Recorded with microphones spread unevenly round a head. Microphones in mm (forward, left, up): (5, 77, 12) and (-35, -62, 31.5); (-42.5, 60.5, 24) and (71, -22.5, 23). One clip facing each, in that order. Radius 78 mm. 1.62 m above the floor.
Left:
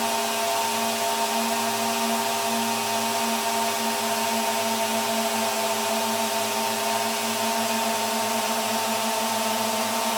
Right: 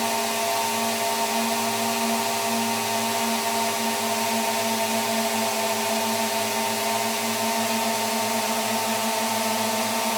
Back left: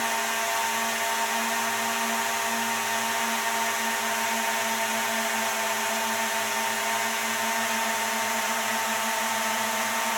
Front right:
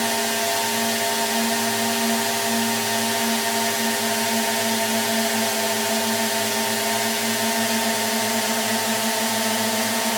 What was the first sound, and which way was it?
A drone, 20° right.